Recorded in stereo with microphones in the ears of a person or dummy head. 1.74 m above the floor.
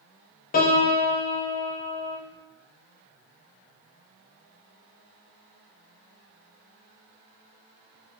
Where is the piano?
40° left (ahead or behind), 0.6 m.